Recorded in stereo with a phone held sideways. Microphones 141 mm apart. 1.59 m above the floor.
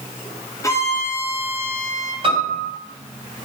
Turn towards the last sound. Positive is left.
turn(degrees=-35)  # may be behind; listen again after turning